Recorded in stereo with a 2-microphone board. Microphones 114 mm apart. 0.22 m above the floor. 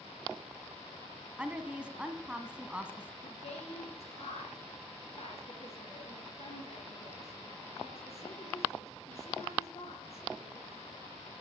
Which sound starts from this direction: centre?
A woman speaking, at 1.4 s.